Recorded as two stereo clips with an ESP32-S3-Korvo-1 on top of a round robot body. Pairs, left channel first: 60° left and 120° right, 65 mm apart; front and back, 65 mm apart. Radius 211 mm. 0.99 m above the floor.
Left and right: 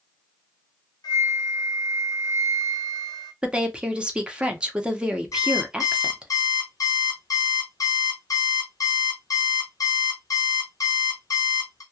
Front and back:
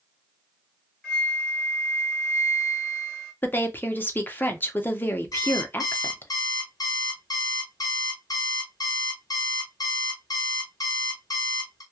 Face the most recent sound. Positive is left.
turn(degrees=25)